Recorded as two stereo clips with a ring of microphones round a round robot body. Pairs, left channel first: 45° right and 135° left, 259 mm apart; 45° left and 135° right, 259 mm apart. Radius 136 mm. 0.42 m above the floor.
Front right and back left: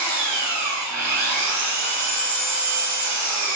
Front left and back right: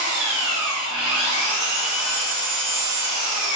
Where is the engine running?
135° left, 1.6 m.